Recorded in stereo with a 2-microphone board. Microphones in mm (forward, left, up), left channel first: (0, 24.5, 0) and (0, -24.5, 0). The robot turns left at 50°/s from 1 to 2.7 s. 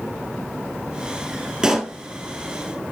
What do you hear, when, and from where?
1.6 s a pop: 10° right (ahead or behind), 1.8 m; by 1.9 s centre (ahead or behind), 1.8 m